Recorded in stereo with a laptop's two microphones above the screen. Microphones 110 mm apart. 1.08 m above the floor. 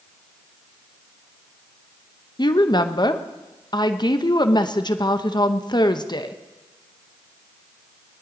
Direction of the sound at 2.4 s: 40° left (ahead or behind).